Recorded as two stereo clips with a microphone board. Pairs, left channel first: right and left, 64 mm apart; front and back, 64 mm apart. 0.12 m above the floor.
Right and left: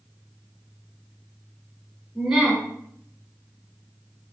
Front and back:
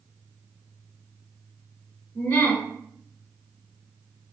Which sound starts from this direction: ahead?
A woman speaking, at 2.1 s.